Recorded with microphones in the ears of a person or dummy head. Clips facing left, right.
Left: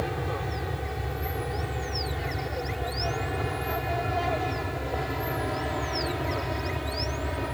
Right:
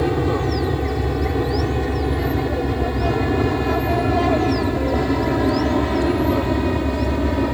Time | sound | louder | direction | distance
0.0 | an aircraft | right 12 dB | 70° right (ahead or behind) | ?